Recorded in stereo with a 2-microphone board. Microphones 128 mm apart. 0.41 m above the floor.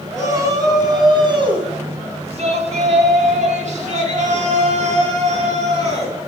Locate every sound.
0.1 s a shout: 25° right (ahead or behind), 4 m; by 6.2 s 55° right (ahead or behind), 4.5 m